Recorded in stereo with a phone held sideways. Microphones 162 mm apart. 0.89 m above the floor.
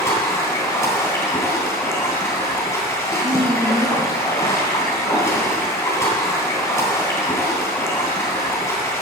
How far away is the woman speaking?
About 7 m.